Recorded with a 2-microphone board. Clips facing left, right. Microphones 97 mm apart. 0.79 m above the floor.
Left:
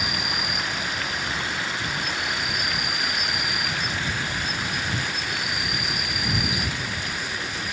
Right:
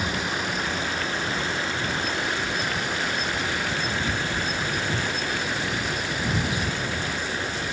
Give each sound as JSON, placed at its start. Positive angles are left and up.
{"t": 0.0, "sound": "an insect", "side_deg": -30}